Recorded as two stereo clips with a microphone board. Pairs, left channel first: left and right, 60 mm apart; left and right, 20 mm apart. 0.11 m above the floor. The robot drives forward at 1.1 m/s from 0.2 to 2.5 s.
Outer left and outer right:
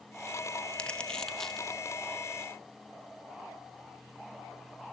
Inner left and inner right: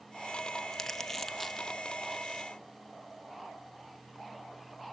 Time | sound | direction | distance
0.7 | crumpling | 20° left (ahead or behind) | 0.6 m